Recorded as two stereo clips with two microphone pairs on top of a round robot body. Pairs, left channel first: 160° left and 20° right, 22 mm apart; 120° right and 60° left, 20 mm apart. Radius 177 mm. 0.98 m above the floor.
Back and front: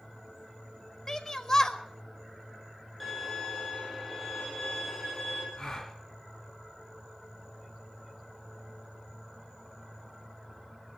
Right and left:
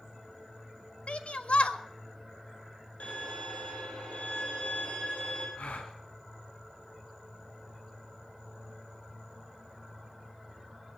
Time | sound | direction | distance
1.1 | a shout | 130° right | 1.6 m
3.0 | a violin | 115° right | 8 m
5.6 | a gasp | 110° right | 1.8 m